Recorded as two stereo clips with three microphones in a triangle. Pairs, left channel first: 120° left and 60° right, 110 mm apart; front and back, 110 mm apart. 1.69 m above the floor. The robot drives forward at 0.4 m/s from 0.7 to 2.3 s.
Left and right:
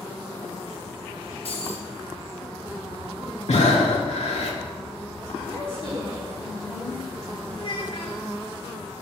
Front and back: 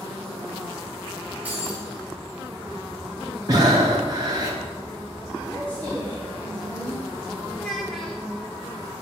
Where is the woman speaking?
75° left, 3.5 m.